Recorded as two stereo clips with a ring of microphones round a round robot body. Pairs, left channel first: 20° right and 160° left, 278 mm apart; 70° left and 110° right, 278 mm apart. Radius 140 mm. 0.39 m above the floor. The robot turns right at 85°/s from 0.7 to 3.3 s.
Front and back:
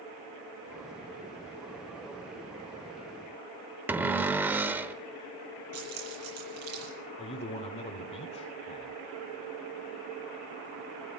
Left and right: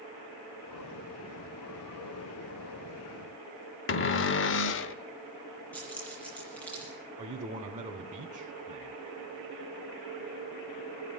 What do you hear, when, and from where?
3.9 s a cupboard door: 75° left, 0.8 m
5.7 s keys jangling: 155° left, 8 m
7.2 s a man speaking: 70° right, 1.2 m